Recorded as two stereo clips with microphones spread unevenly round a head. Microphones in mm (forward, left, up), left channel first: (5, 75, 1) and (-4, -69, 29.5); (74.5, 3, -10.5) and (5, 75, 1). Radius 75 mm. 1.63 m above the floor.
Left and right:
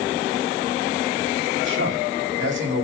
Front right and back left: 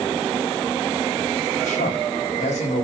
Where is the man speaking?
95° right, 4 m.